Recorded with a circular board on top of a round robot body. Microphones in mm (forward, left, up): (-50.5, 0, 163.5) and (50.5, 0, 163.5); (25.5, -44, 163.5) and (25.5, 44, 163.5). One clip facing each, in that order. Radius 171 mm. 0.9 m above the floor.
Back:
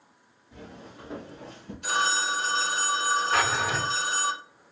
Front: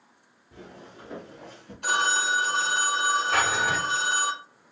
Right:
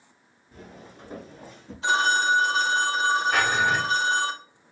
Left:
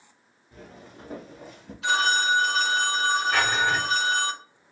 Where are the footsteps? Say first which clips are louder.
Even, even; 25° right, 0.8 m; by 1.7 s 125° left, 1.5 m.